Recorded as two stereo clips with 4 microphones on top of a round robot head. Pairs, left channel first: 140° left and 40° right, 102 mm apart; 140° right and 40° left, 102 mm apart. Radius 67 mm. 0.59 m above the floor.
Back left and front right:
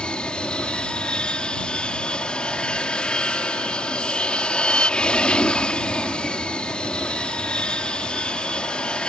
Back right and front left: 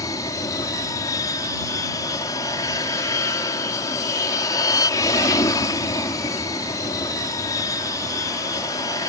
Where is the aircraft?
145° right.